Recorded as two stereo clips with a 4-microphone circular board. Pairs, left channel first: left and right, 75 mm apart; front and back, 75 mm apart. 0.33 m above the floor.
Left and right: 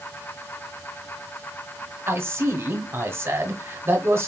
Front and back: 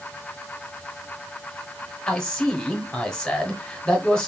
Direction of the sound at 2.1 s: 70° right.